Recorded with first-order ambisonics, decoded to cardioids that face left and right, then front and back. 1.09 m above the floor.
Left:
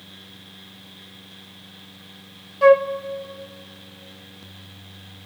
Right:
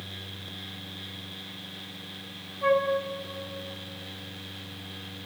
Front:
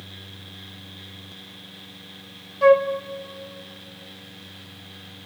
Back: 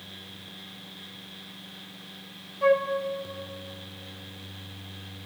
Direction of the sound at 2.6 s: 65° left.